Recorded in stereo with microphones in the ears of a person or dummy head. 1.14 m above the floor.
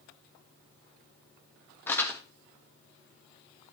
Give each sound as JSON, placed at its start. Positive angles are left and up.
{"t": 1.9, "sound": "crumpling", "side_deg": 15, "distance_m": 1.3}